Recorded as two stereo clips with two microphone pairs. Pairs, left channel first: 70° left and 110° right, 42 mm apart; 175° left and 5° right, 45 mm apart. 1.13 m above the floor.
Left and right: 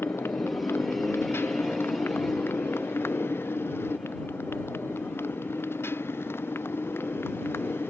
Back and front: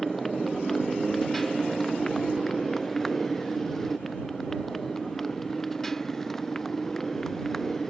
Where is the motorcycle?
90° left; by 7.9 s 95° left.